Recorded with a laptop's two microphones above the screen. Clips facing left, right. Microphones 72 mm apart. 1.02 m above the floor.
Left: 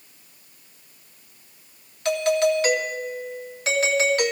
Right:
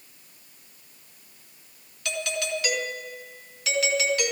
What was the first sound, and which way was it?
A doorbell, 40° left (ahead or behind).